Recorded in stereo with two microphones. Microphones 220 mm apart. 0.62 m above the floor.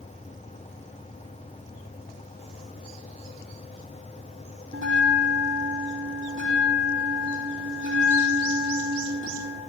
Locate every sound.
4.7 s a bell: 65° right (ahead or behind), 6 m